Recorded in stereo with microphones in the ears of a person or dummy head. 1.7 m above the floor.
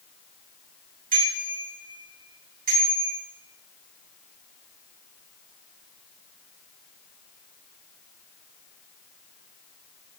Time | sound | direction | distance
1.1 | a bicycle bell | 50° right (ahead or behind) | 8.5 m